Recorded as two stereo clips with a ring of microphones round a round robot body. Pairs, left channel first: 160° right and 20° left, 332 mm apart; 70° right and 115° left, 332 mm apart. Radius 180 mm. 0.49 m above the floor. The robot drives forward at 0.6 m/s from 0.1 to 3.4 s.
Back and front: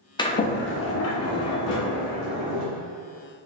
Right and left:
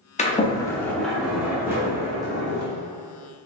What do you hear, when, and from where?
0.2 s a sliding door: 100° right, 0.7 m; by 2.6 s 170° right, 1.7 m